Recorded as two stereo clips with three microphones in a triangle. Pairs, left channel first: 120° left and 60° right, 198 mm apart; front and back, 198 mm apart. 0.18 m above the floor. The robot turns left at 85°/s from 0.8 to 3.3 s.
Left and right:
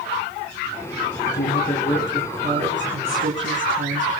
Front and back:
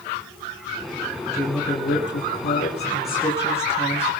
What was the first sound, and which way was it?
A woman speaking, 90° left.